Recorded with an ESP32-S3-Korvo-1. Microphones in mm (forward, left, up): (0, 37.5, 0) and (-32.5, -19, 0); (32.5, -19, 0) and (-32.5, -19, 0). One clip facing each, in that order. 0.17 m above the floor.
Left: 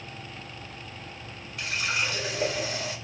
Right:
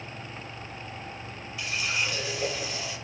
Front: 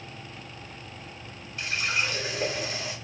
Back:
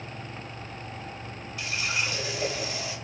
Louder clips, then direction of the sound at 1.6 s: Left 1 dB, front 2 dB; 40° left.